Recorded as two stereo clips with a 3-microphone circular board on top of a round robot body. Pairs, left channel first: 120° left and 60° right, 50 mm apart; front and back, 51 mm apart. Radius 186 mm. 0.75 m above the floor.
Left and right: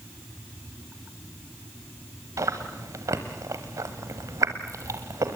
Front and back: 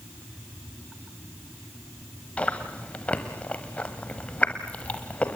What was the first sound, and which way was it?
Chewing, 65° right.